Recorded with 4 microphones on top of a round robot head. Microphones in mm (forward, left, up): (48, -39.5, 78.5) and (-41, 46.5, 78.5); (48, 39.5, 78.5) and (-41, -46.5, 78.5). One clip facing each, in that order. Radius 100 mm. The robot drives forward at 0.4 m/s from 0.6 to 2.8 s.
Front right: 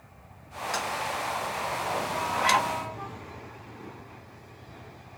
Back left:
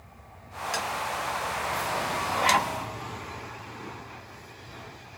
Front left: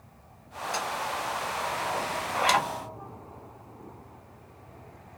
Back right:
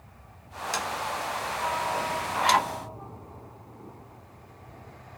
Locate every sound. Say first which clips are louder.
0.7 s tapping: even, even; 145° right, 0.6 m; by 0.9 s 150° right, 0.7 m
2.3 s a zipper: even, back right 2 dB; 130° left, 1.5 m; by 2.7 s 135° left, 1.6 m